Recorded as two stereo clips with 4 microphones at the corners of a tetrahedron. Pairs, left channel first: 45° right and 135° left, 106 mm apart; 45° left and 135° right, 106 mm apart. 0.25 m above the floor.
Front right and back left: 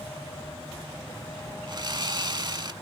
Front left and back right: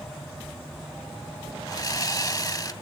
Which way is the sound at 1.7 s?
95° left.